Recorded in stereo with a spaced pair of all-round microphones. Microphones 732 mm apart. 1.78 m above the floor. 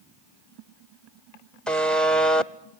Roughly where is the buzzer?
Centre.